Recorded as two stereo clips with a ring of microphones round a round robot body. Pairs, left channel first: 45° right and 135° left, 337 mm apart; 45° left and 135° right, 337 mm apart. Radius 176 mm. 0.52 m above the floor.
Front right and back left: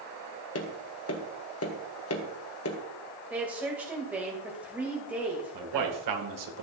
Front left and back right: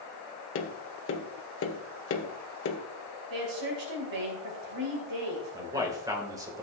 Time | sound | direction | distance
0.6 | tapping | straight ahead | 1.6 m
3.3 | a woman speaking | 140° right | 2.5 m
5.5 | a man speaking | 145° left | 2 m